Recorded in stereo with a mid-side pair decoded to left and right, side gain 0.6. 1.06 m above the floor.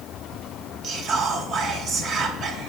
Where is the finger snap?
No finger snap in this recording.